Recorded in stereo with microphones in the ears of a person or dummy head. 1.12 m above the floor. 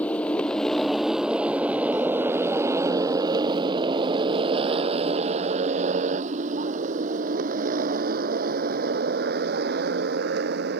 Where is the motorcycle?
10° left (ahead or behind); by 10.8 s 65° right (ahead or behind).